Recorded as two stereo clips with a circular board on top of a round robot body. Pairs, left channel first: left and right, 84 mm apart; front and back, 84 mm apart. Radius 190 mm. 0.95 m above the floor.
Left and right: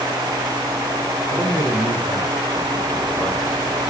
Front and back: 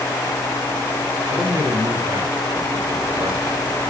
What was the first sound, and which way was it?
A man speaking, 130° left.